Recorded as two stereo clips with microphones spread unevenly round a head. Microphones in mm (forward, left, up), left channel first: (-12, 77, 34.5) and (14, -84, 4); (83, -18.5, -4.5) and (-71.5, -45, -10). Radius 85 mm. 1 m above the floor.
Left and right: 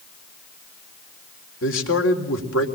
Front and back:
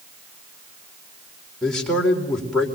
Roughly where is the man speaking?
Left.